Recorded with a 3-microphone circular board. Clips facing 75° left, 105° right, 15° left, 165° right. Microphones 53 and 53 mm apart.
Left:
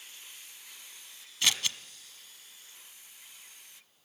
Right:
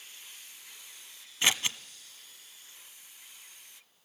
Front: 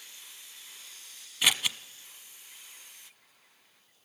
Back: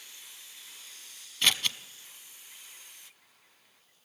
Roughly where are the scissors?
Ahead right.